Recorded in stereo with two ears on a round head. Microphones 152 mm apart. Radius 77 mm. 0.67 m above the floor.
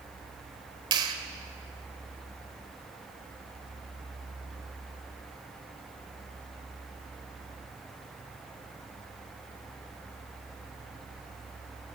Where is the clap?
25° right (ahead or behind), 2 m.